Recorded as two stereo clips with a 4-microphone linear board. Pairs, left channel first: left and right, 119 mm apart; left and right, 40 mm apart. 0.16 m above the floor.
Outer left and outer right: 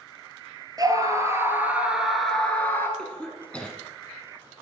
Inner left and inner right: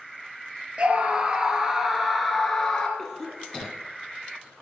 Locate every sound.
0.8 s a scream: 30° right (ahead or behind), 3 m; by 2.9 s 20° left (ahead or behind), 2.5 m
3.0 s a cough: 10° left (ahead or behind), 1.3 m